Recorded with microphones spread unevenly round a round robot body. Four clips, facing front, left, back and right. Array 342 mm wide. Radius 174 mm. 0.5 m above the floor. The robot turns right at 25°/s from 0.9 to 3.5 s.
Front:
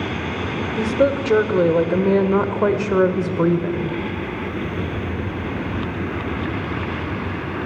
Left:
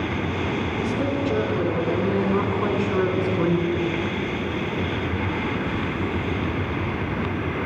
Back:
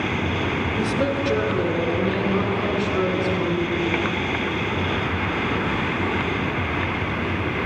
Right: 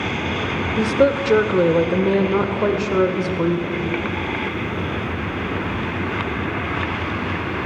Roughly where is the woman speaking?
Ahead right.